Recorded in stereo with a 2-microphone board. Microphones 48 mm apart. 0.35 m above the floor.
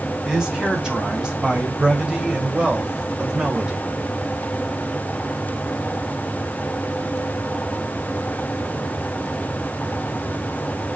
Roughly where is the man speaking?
Centre.